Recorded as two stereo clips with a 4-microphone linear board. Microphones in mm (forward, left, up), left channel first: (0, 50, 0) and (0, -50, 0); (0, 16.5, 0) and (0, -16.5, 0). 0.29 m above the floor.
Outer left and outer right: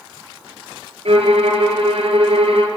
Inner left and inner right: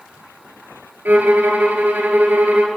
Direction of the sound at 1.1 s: 85° right.